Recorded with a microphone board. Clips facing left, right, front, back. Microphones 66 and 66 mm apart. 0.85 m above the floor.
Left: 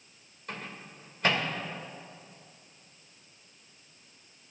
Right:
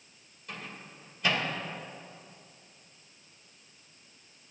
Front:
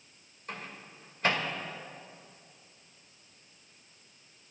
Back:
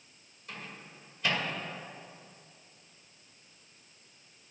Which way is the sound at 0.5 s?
50° left.